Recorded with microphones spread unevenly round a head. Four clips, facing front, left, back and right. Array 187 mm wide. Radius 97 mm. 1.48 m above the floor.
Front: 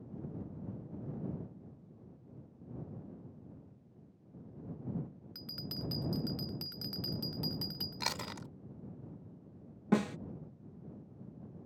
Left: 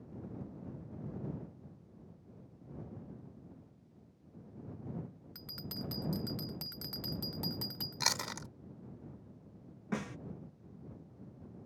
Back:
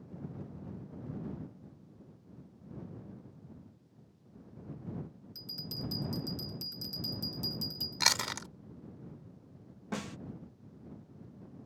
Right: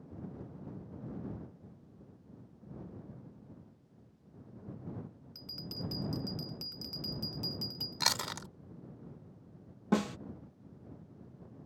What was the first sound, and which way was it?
A bell, 80° left.